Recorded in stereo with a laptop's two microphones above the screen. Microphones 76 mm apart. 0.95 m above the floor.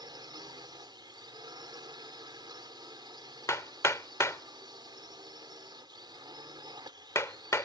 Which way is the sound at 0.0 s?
75° right (ahead or behind).